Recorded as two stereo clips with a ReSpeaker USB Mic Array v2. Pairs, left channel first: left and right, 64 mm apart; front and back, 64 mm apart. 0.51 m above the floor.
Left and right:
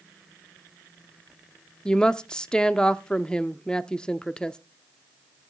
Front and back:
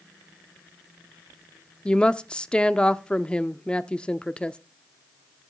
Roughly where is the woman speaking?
Ahead left.